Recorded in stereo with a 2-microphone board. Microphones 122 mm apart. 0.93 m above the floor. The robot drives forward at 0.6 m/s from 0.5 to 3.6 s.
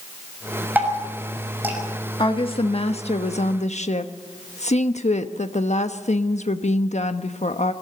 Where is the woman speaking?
45° left (ahead or behind), 1.4 m; by 7.7 s 70° left (ahead or behind), 1.1 m.